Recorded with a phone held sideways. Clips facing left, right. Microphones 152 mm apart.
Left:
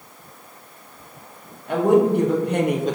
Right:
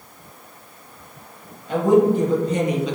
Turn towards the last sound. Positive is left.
turn(degrees=45)  # may be behind; listen again after turning